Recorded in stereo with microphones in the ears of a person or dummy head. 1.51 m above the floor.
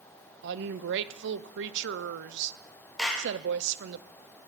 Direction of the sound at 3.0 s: 5° left (ahead or behind).